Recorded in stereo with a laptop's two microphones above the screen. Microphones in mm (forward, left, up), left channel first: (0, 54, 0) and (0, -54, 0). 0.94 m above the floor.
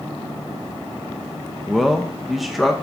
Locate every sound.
1.7 s a man speaking: centre (ahead or behind), 0.6 m